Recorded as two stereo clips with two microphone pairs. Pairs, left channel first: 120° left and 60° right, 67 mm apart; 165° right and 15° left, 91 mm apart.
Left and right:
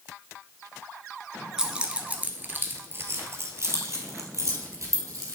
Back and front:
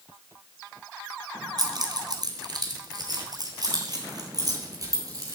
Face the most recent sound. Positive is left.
turn(degrees=-30)